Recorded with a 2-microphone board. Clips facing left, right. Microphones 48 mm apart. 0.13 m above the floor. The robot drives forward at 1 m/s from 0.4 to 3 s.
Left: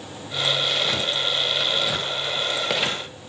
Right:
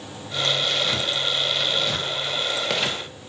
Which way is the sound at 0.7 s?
5° left (ahead or behind).